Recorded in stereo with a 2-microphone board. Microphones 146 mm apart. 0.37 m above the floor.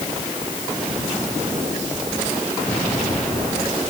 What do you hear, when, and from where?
Only background noise.